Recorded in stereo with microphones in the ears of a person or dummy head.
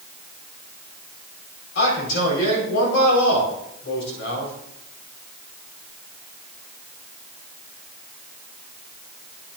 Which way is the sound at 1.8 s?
75° left (ahead or behind).